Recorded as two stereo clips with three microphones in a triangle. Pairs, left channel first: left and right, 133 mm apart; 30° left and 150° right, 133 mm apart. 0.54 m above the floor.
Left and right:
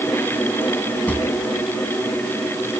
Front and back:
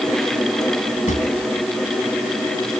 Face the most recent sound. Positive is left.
turn(degrees=15)